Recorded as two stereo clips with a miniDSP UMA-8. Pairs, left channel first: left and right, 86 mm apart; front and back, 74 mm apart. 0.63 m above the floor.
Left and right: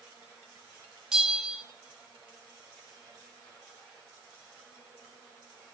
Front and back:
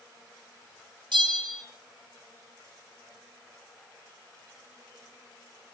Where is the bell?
170° right, 1.8 m.